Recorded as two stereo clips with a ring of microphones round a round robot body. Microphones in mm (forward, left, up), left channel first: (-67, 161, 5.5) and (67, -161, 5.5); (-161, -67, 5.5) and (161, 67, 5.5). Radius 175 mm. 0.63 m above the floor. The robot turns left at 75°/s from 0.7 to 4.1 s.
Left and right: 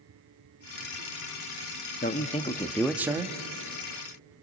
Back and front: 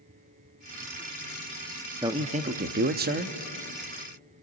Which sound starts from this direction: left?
A man speaking, at 2.0 s.